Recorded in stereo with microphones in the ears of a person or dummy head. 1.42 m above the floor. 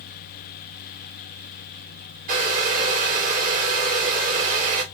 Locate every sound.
2.3 s a hair dryer: 50° right (ahead or behind), 2.5 m